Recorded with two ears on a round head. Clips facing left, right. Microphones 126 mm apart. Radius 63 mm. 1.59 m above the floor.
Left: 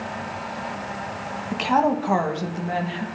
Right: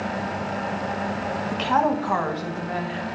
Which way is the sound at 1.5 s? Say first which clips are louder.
Left 2 dB; 5° left (ahead or behind).